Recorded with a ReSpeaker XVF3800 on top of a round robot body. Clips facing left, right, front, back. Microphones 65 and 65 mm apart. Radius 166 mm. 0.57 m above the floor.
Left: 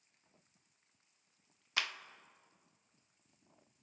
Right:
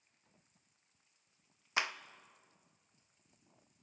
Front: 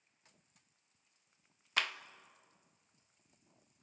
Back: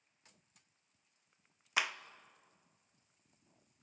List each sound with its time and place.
1.8 s a clap: 115° right, 0.7 m